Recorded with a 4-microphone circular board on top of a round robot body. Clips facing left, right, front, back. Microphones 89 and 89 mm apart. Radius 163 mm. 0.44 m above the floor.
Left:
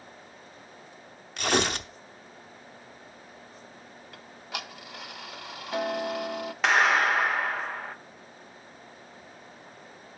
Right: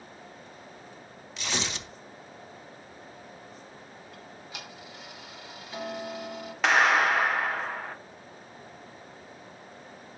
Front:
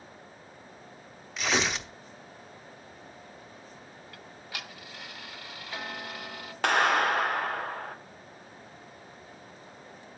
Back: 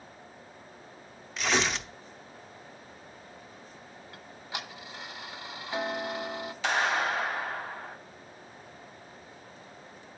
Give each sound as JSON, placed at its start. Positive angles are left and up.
{"t": 1.4, "sound": "tearing paper", "azimuth_deg": 90, "distance_m": 0.8}
{"t": 4.1, "sound": "ticking", "azimuth_deg": 115, "distance_m": 0.5}
{"t": 6.6, "sound": "a clap", "azimuth_deg": 0, "distance_m": 1.5}